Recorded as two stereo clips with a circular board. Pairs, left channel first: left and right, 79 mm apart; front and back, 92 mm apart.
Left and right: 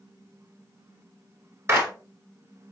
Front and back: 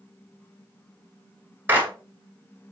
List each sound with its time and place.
1.7 s a clap: 125° right, 1.3 m